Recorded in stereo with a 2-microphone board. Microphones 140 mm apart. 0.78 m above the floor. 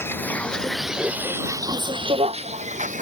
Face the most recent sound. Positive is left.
turn(degrees=-60)  # may be behind; listen again after turning